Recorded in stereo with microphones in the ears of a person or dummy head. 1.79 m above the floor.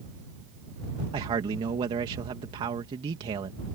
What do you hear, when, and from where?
1.1 s a man speaking: 25° right (ahead or behind)